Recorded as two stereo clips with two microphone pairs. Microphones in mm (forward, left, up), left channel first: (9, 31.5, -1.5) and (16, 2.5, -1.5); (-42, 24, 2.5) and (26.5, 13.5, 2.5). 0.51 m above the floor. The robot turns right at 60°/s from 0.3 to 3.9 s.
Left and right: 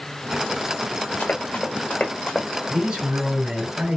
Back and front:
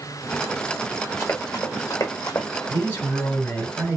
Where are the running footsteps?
110° left, 2.5 m; by 2.5 s 170° left, 1.2 m.